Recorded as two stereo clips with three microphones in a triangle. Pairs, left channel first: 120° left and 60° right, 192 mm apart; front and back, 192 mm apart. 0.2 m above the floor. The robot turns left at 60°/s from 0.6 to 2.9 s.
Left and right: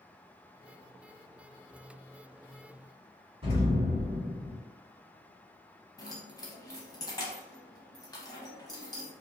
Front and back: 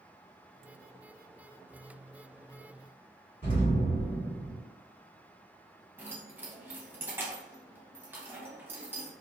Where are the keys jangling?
125° left, 0.6 m.